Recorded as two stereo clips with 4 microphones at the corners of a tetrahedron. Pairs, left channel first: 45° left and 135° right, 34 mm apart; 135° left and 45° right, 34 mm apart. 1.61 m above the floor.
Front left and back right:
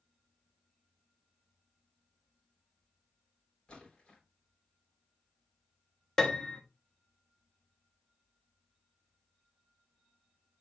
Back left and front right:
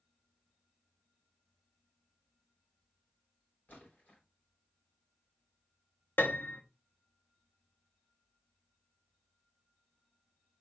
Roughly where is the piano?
Behind left.